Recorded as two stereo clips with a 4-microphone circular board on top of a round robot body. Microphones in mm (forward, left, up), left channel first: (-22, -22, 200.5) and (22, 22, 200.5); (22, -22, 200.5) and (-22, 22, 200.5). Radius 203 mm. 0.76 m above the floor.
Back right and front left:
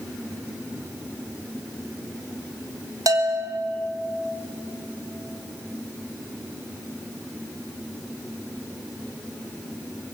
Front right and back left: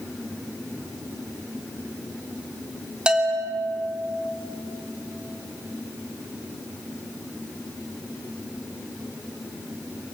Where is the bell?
60° left, 2.5 m.